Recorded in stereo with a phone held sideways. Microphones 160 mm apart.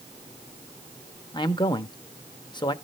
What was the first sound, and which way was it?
A man speaking, 30° left (ahead or behind).